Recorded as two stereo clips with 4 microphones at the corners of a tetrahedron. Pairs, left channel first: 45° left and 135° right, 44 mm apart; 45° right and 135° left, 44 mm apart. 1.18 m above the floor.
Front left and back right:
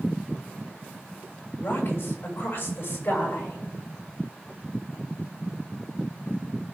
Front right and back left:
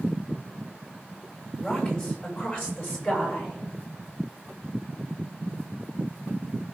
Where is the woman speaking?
10° left, 6.5 m; by 3.6 s straight ahead, 6 m.